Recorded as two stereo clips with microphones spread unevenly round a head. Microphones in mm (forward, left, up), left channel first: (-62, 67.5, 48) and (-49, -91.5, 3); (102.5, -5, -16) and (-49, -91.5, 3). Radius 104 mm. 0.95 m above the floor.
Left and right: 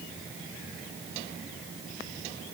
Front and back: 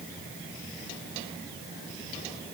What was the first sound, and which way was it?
Only background noise.